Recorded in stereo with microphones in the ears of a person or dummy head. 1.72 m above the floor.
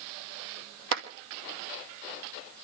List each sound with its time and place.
0.9 s a clap: 60° right (ahead or behind), 2 m